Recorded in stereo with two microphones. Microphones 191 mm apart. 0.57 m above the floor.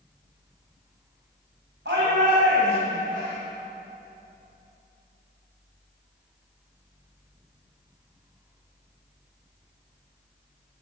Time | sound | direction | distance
1.9 | a shout | 75° right (ahead or behind) | 3.5 m